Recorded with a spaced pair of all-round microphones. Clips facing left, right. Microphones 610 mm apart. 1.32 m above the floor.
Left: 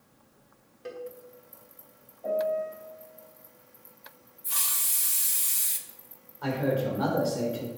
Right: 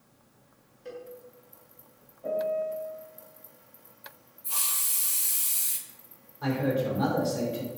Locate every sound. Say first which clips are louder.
0.8 s a cowbell: left 3 dB; 85° left, 1.7 m
2.2 s a piano: left 1 dB; 35° right (ahead or behind), 2.5 m
4.4 s a hiss: right 1 dB; 45° left (ahead or behind), 0.9 m
6.4 s a man speaking: even; 45° right (ahead or behind), 3.5 m